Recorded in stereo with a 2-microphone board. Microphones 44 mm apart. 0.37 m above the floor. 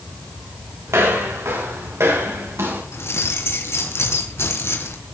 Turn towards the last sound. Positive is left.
turn(degrees=65)  # may be behind; listen again after turning